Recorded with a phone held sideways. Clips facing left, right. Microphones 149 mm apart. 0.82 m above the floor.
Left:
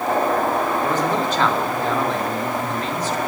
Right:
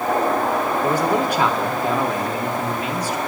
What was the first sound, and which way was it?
A man speaking, 10° right (ahead or behind).